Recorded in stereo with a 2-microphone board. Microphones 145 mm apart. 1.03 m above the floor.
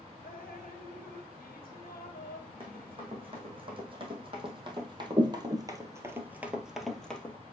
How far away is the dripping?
About 0.9 m.